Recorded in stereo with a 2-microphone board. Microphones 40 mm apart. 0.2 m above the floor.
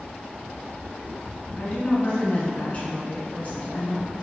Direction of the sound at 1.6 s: 40° left (ahead or behind).